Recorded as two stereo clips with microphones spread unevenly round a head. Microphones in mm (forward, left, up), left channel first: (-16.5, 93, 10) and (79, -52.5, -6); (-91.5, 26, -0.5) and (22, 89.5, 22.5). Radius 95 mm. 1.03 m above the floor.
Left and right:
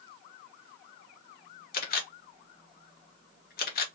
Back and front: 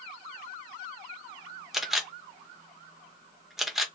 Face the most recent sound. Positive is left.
turn(degrees=125)